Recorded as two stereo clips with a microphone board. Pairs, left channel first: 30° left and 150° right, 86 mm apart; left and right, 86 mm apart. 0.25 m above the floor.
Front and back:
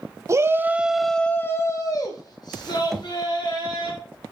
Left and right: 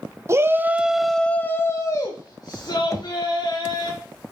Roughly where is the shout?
Behind right.